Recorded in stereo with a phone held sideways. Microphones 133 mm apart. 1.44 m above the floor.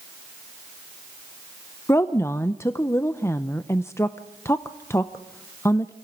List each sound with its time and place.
1.9 s a woman speaking: 20° left (ahead or behind), 0.7 m